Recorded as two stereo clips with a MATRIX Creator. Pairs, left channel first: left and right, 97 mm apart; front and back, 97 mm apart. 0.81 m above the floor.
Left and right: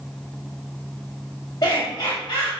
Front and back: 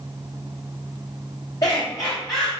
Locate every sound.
1.6 s laughter: 45° left, 3.5 m